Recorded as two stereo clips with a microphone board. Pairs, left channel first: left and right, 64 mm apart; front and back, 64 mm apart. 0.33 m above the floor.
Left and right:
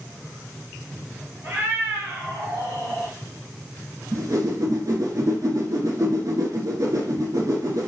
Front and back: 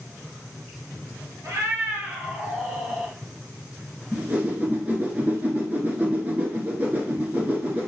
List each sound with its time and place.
1.4 s a cat meowing: 140° right, 1.1 m; by 3.1 s 90° right, 1.6 m
4.1 s a whoosh: 115° right, 0.9 m